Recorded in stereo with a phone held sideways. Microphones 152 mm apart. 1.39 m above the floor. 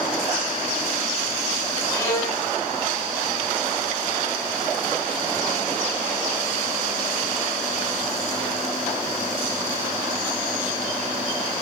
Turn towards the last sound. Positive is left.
turn(degrees=25)  # may be behind; listen again after turning